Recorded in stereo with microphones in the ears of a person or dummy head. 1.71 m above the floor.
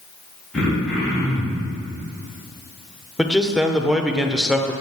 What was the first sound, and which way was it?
Throat clearing, centre (ahead or behind).